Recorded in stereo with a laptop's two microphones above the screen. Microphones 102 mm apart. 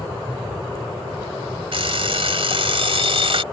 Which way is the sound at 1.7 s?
65° right (ahead or behind).